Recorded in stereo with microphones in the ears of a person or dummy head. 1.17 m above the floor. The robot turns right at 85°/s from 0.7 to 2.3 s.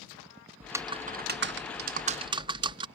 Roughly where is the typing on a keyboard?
Behind.